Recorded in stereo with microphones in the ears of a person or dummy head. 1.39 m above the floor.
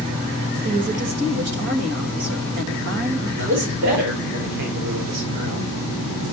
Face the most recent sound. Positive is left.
turn(degrees=-70)  # may be behind; listen again after turning